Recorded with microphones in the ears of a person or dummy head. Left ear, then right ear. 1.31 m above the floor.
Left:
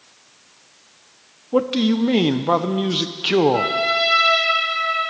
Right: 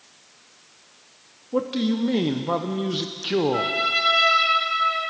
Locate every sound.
1.5 s a man speaking: 25° left (ahead or behind), 0.7 m
3.5 s a trumpet: 40° right (ahead or behind), 6 m